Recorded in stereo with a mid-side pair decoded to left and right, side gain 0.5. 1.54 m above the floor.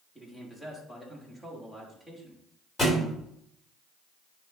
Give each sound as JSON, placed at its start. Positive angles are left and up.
{"t": 0.1, "sound": "a man speaking", "azimuth_deg": 10, "distance_m": 3.5}
{"t": 2.8, "sound": "a thud", "azimuth_deg": 25, "distance_m": 3.5}